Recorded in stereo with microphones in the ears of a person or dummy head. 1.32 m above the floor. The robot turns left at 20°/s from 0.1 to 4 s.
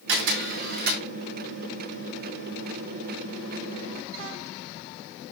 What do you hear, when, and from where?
0.1 s a camera shutter: 75° right (ahead or behind), 2.5 m; by 1.0 s 55° right (ahead or behind), 2.5 m